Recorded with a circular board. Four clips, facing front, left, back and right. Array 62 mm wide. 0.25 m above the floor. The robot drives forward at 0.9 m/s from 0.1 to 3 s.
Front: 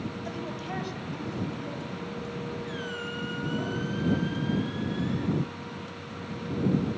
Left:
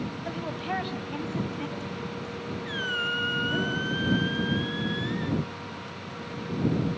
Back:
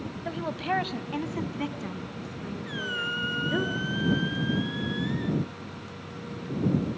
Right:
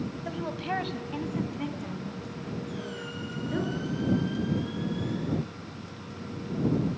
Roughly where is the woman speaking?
Behind.